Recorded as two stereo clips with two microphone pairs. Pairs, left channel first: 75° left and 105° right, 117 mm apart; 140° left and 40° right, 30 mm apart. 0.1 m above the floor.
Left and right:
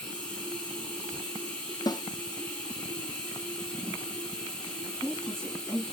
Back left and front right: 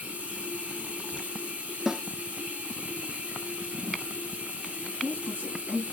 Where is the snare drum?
20° left, 0.9 m.